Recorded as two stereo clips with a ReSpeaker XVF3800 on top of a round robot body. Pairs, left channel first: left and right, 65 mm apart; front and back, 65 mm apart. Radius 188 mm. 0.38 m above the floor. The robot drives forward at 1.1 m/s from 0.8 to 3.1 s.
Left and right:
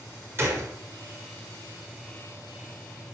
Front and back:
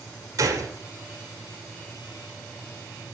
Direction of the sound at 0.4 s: 140° right.